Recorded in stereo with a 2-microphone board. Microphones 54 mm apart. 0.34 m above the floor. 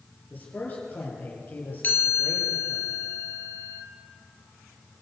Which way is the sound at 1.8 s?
35° left (ahead or behind).